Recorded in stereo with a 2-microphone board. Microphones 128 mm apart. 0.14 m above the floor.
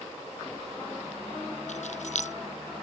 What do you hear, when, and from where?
1.7 s keys jangling: 65° left (ahead or behind)